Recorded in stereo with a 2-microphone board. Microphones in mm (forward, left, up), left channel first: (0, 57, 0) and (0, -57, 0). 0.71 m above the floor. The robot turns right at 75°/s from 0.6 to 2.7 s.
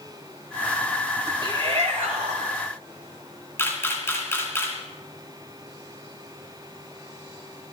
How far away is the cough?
No cough in this recording.